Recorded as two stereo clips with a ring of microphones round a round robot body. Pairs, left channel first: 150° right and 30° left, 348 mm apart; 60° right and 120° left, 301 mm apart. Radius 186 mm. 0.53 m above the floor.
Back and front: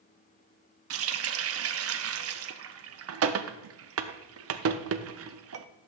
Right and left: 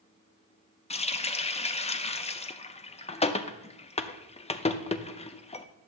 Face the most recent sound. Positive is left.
turn(degrees=5)